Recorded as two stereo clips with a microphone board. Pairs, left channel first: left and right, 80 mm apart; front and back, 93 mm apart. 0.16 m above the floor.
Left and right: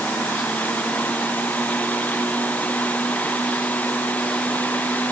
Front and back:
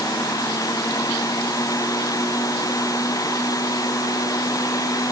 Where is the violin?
I don't hear a violin.